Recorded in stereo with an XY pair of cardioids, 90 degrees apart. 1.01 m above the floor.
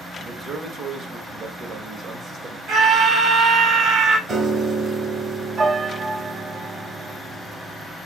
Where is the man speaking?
55° right, 1.7 m.